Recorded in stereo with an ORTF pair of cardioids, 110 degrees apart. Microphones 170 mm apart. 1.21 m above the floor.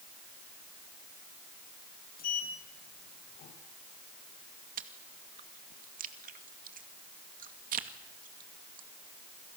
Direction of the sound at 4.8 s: 55° right.